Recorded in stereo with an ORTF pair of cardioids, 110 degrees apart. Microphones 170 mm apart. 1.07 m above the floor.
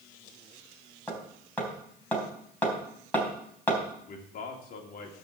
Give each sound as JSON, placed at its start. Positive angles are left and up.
{"t": 1.1, "sound": "hammering", "azimuth_deg": 10, "distance_m": 3.5}
{"t": 4.1, "sound": "a man speaking", "azimuth_deg": 60, "distance_m": 2.5}